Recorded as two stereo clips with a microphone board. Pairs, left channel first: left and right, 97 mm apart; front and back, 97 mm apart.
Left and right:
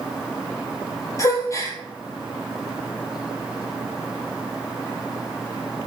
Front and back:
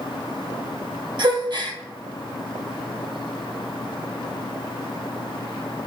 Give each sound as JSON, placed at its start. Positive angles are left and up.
{"t": 1.2, "sound": "a gasp", "azimuth_deg": 145, "distance_m": 0.7}